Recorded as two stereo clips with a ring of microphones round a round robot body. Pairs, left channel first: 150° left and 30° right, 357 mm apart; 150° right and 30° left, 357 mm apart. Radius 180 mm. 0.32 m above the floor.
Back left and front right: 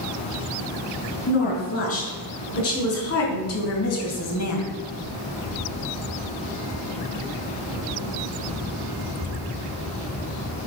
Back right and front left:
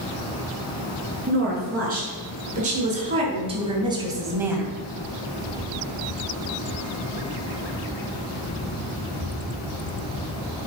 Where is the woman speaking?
95° left, 5 m; by 4.7 s 120° left, 2 m.